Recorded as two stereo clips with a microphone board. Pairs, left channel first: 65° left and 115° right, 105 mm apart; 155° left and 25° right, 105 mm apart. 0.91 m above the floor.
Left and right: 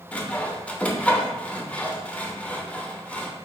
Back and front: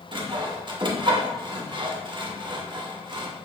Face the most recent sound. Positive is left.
turn(degrees=-5)